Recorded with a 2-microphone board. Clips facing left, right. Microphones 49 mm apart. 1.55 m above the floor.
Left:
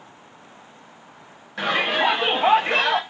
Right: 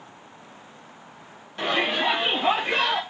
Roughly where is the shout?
Left.